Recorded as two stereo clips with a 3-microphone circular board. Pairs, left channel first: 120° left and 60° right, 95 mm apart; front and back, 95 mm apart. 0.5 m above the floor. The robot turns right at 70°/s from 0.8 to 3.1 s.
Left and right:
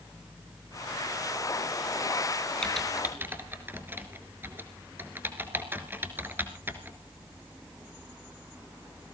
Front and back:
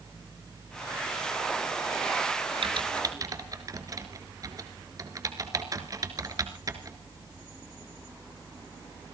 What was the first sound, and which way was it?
Typing on a keyboard, 160° right.